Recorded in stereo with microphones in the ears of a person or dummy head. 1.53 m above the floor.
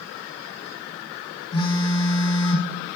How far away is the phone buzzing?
About 0.7 m.